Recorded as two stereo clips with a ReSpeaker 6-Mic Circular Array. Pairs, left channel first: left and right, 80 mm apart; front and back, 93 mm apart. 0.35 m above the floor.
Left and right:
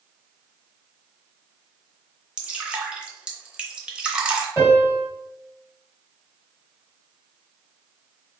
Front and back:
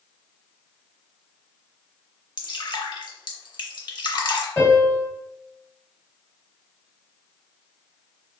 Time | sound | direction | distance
2.4 | dripping | 15° right | 0.7 m
4.6 | a piano | 60° left | 1.8 m